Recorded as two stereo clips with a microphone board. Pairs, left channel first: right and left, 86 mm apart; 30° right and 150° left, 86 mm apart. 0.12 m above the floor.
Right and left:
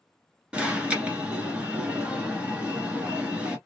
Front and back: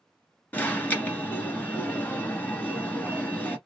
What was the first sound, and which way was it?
An alarm, 25° left.